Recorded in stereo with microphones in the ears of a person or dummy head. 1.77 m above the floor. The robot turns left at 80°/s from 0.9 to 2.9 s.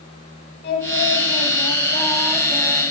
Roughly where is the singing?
Behind left.